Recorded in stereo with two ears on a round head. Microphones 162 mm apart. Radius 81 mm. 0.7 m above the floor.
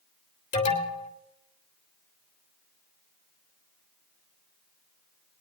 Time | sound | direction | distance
0.5 | an alarm | 40° left (ahead or behind) | 3 m